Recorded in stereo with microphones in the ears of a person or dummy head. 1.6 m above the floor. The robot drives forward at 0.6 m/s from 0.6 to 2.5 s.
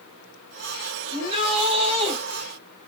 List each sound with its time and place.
1.1 s a shout: 30° right (ahead or behind), 5.5 m; by 2.2 s 35° right (ahead or behind), 5 m